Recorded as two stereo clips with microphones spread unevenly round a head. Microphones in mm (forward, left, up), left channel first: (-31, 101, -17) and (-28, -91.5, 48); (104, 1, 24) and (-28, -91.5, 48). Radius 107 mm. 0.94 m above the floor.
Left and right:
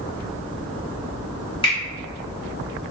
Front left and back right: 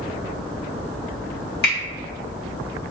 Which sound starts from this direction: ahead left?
A finger snap, at 1.6 s.